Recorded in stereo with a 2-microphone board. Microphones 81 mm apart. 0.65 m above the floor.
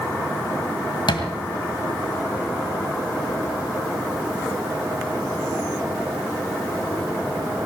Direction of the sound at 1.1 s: 75° left (ahead or behind).